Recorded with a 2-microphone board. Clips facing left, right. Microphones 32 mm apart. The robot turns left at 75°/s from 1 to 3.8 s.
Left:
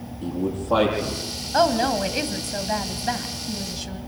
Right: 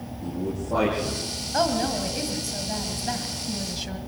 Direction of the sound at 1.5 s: 150° left.